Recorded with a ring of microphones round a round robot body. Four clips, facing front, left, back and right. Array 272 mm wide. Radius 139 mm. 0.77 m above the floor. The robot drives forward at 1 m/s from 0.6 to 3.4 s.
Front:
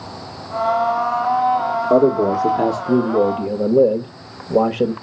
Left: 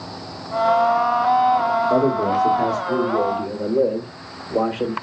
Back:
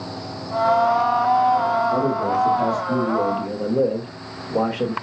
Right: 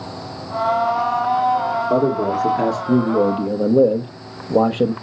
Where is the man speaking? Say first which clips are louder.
Even, front 6 dB; 20° right, 2 m; by 4.9 s 50° right, 1.1 m.